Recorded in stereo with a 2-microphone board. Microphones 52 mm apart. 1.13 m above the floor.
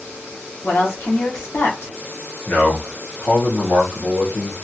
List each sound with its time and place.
0.6 s a woman speaking: 55° left (ahead or behind), 1.0 m
2.5 s a man speaking: 55° left (ahead or behind), 0.9 m